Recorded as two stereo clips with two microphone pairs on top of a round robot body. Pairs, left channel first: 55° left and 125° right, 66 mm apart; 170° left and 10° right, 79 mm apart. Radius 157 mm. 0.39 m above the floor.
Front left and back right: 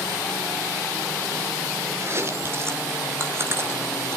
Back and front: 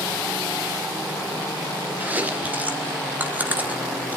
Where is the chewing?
75° right, 2.5 m.